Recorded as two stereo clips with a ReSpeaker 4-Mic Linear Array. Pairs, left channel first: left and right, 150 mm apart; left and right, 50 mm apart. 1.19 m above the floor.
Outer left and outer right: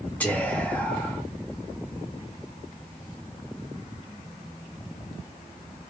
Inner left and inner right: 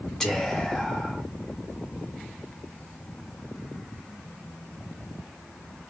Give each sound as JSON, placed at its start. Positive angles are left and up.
{"t": 0.2, "sound": "whispering", "side_deg": 10, "distance_m": 1.2}